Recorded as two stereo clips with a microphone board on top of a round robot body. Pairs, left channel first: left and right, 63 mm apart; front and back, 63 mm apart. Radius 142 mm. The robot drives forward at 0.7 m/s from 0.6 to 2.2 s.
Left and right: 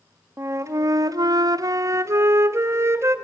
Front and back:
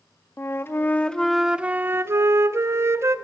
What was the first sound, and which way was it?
A flute, 50° right.